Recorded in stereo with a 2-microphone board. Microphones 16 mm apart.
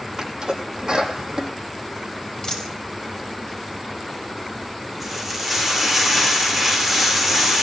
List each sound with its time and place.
0.2 s a sneeze: 40° right (ahead or behind), 6 m
2.4 s a dropped coin: 40° left (ahead or behind), 6 m
5.0 s frying: 5° right (ahead or behind), 7 m